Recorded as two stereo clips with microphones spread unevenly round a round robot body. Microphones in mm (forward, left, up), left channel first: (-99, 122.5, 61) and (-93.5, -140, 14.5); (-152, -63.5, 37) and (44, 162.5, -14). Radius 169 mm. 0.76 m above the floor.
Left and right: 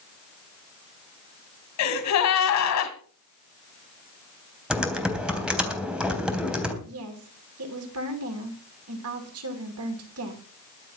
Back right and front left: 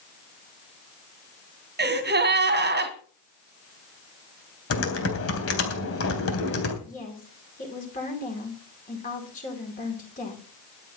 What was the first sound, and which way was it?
A gasp, 105° left.